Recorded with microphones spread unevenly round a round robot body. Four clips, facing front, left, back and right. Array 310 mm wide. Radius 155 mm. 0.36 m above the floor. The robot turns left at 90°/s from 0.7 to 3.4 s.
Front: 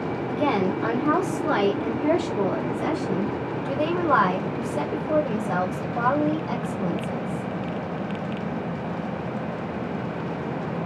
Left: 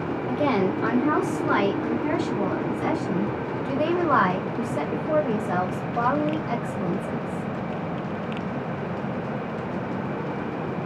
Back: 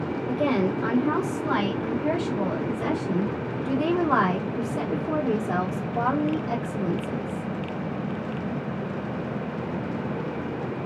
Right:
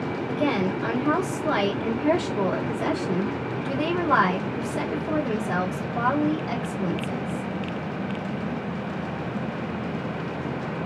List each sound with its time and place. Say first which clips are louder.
0.3 s a woman speaking: left 2 dB, front 1 dB; 80° left, 1.7 m; by 7.4 s 165° right, 1.7 m